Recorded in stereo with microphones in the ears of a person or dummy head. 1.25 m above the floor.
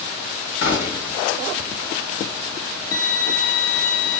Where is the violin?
55° left (ahead or behind), 1.1 m.